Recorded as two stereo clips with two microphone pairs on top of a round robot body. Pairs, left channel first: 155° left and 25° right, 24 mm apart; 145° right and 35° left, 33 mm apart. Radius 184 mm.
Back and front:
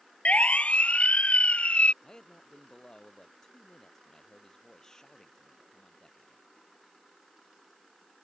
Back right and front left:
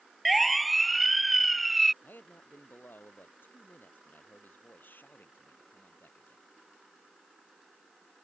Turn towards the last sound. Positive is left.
turn(degrees=-145)